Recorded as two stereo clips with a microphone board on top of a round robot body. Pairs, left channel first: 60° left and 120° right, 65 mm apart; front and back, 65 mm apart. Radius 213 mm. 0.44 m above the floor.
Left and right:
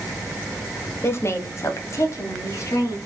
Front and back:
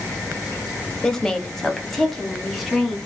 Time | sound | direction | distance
1.0 | a woman speaking | 70° left | 1.1 m